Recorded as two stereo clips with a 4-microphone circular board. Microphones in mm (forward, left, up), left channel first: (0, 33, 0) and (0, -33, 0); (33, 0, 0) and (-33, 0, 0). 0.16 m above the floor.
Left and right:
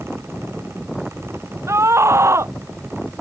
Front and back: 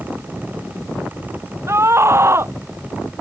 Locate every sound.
1.7 s a scream: 135° right